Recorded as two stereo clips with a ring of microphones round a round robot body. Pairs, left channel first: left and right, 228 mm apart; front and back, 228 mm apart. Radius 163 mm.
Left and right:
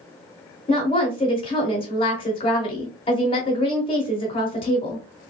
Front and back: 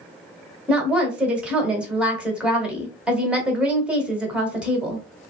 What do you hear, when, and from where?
0.7 s a woman speaking: 100° left, 0.9 m